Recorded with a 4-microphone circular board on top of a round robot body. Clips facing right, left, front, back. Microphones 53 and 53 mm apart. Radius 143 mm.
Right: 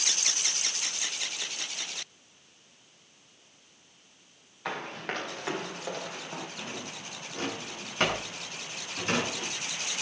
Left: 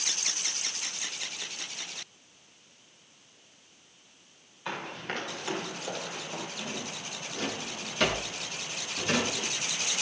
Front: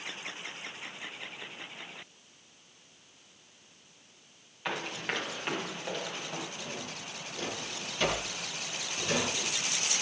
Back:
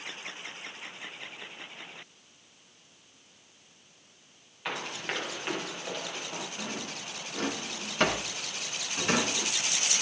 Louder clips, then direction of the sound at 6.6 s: Left 2 dB, back 3 dB; 140° right.